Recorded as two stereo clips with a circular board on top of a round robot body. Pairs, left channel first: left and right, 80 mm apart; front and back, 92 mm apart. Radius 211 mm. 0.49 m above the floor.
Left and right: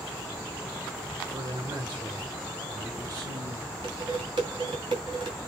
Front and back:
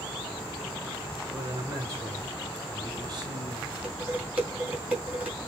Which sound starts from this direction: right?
Dishes clattering, at 3.8 s.